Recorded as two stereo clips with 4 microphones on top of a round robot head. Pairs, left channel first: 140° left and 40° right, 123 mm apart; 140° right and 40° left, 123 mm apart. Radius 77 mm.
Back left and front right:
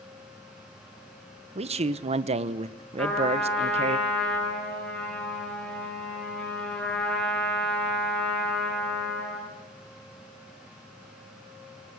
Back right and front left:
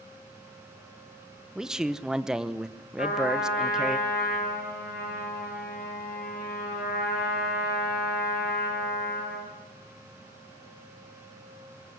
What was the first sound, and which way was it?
A man speaking, 45° right.